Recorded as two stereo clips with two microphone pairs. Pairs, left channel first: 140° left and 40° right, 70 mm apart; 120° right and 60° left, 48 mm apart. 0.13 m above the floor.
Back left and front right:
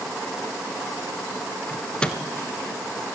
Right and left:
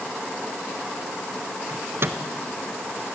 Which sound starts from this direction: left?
A microwave, at 1.7 s.